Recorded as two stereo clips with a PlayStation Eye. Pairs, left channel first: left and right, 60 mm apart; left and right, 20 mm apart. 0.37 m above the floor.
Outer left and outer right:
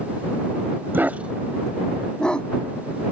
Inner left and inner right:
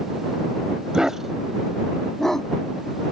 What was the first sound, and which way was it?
A dog barking, 35° right (ahead or behind).